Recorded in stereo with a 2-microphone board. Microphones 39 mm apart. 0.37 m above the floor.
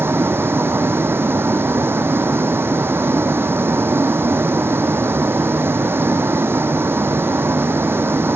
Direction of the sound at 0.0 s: 80° right.